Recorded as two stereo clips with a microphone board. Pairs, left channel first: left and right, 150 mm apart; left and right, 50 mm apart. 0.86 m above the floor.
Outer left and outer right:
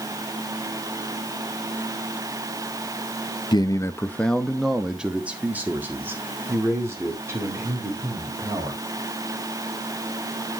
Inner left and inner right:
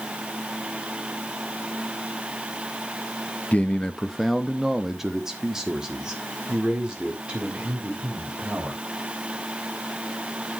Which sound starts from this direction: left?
A man speaking, at 3.5 s.